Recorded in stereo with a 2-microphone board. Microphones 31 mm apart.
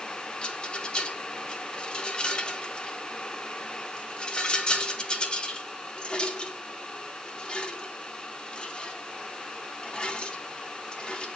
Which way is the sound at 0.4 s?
30° left (ahead or behind).